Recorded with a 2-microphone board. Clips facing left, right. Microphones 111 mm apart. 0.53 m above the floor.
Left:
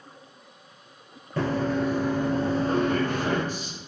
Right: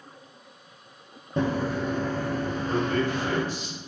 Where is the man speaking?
45° left (ahead or behind), 1.0 m.